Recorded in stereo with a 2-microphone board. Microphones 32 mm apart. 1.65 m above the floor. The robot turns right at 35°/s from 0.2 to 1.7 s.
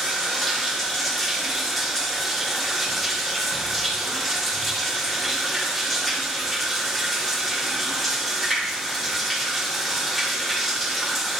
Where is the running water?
15° left (ahead or behind), 1.3 m; by 11.4 s centre (ahead or behind), 1.3 m.